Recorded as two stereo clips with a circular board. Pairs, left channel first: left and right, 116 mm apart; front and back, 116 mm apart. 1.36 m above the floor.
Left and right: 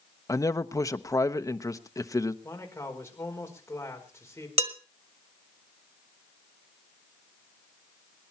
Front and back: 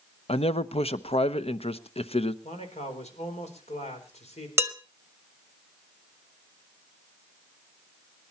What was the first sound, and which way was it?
A man speaking, 30° left.